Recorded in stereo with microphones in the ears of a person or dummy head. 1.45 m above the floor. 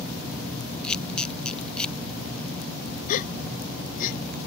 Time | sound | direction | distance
0.8 | a camera shutter | 5° left (ahead or behind) | ?
3.1 | a gasp | 45° left (ahead or behind) | ?